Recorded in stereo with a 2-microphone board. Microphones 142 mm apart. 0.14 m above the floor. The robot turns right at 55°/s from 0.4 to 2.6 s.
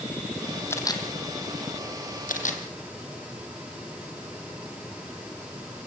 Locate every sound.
0.7 s a camera shutter: 15° left (ahead or behind), 2.5 m; by 2.6 s 60° left (ahead or behind), 2.5 m